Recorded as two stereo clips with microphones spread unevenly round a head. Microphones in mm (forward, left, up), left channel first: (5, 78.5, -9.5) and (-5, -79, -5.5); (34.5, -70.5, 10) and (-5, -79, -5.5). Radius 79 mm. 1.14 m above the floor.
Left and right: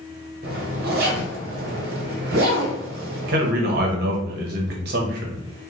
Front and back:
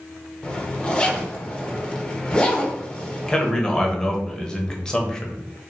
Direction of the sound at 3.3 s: 75° right.